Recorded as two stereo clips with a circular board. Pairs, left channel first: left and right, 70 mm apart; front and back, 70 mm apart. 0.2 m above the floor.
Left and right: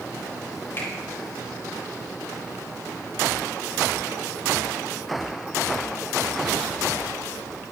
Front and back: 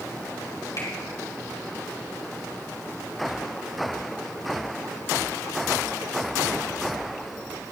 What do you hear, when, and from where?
0.8 s a finger snap: 35° left, 5 m